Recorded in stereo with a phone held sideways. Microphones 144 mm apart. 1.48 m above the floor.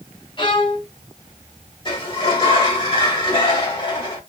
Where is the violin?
35° left (ahead or behind), 0.9 m.